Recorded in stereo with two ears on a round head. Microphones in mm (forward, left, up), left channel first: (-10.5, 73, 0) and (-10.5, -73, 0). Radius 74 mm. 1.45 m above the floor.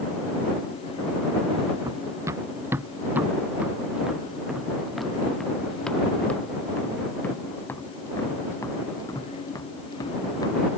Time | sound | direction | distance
1.8 | running footsteps | 20° right (ahead or behind) | ?